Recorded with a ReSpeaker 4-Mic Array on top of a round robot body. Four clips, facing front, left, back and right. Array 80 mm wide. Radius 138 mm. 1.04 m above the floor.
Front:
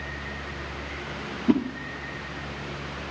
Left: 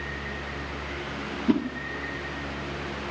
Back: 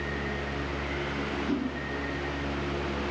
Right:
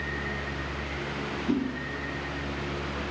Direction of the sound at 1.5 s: 30° left.